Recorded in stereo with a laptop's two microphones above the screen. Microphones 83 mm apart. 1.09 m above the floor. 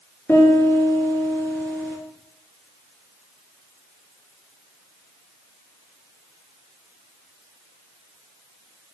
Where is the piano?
20° left (ahead or behind), 5 m.